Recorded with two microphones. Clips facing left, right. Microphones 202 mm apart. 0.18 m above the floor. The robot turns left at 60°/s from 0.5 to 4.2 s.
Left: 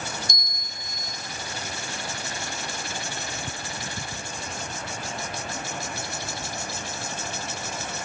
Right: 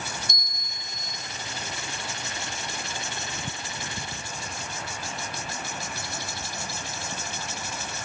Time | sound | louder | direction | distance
0.3 | a bell | left 2 dB | 125° right | 1.0 m